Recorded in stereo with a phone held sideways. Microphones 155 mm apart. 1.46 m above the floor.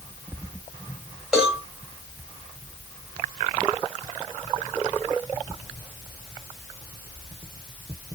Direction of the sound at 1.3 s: 5° right (ahead or behind).